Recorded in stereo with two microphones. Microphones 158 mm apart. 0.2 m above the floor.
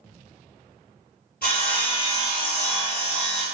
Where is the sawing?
85° left, 0.7 m.